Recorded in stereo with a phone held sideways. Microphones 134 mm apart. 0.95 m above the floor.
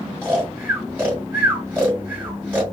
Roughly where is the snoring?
Centre.